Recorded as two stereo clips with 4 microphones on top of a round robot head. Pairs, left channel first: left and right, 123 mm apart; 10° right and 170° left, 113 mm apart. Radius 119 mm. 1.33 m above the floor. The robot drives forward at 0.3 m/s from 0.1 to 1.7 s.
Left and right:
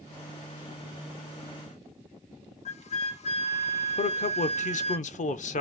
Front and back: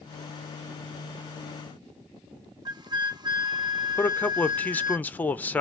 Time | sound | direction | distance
2.6 | a flute | 120° left | 1.3 m
4.0 | a man speaking | 70° left | 0.8 m